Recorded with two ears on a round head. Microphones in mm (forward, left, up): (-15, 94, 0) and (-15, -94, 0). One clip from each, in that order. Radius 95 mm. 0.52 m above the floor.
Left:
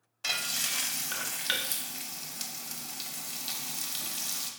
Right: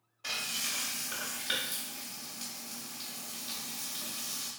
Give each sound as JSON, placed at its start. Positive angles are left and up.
{"t": 0.2, "sound": "frying", "side_deg": 40, "distance_m": 0.6}